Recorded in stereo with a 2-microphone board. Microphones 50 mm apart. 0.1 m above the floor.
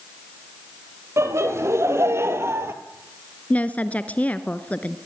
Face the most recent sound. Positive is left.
turn(degrees=30)  # may be behind; listen again after turning